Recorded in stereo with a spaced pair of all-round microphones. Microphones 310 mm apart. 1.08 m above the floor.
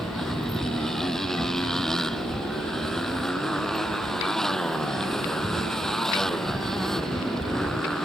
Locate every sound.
0.0 s a motorcycle: centre (ahead or behind)